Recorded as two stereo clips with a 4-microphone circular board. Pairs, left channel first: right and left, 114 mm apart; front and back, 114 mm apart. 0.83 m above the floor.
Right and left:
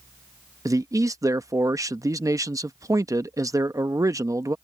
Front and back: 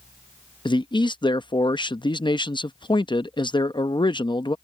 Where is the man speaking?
35° left.